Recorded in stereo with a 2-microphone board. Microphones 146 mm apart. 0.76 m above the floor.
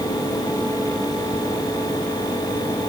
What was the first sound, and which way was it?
Only background noise.